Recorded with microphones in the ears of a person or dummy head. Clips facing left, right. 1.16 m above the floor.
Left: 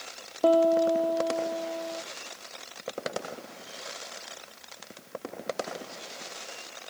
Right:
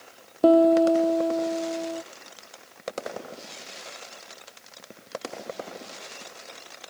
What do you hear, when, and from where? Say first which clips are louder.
0.4 s a piano: right 5 dB; 35° right (ahead or behind)